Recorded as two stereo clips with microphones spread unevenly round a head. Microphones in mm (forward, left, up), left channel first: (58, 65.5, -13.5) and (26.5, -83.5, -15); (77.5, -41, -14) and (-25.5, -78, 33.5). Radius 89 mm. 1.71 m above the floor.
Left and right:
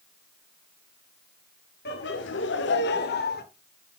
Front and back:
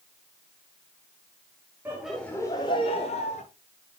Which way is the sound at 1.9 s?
120° left.